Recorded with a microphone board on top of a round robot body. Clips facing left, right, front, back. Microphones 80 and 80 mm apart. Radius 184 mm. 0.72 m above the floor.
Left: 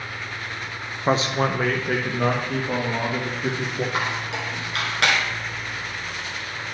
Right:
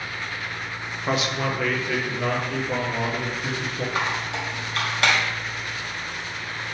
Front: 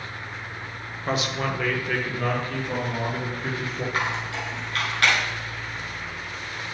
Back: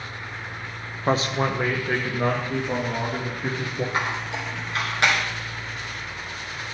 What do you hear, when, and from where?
1.1 s a man speaking: 140° left, 0.8 m; by 3.8 s 120° left, 2 m
3.9 s a squeak: 110° left, 1.2 m